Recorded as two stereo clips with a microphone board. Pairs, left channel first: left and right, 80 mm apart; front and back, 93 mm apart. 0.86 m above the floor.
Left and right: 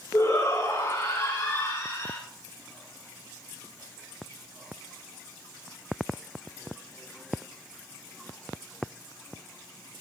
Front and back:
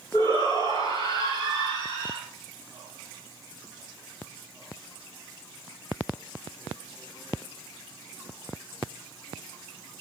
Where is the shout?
50° left, 8 m; by 2.2 s 60° left, 7.5 m.